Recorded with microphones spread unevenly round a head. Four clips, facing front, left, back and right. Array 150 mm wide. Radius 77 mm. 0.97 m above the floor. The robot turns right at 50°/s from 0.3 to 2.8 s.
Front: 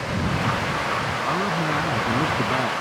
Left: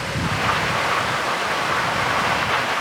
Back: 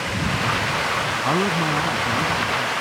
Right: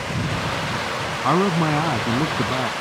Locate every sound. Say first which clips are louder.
1.2 s a man speaking: right 4 dB, back 4 dB; 115° right; by 2.7 s 45° right